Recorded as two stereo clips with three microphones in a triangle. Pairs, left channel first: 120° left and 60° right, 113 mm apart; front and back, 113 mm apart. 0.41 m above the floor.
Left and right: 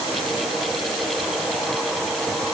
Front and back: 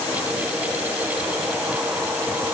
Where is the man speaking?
No man speaking in this recording.